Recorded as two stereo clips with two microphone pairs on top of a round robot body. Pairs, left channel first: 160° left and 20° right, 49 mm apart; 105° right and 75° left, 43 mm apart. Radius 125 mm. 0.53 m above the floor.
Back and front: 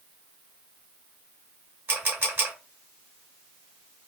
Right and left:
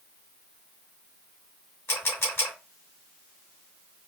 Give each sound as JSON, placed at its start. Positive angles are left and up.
{"t": 1.9, "sound": "a camera shutter", "azimuth_deg": -70, "distance_m": 2.5}